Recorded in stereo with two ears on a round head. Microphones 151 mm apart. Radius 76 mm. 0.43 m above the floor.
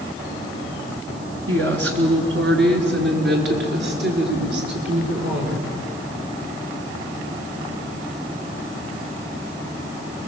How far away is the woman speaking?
About 5 m.